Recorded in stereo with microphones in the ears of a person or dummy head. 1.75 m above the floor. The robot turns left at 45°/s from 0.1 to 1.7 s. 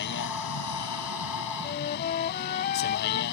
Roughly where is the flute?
Left.